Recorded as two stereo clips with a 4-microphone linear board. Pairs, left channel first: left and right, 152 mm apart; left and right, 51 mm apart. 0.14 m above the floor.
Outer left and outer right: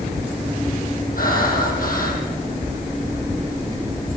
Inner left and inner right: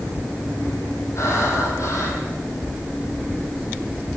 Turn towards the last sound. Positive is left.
turn(degrees=65)  # may be behind; listen again after turning